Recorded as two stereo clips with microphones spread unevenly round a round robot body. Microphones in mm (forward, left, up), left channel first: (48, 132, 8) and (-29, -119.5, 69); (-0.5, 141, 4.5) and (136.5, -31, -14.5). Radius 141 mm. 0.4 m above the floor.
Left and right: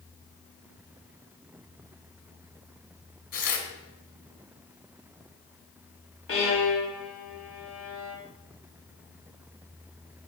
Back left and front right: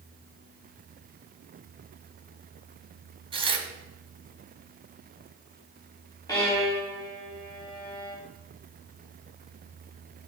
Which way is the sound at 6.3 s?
55° left.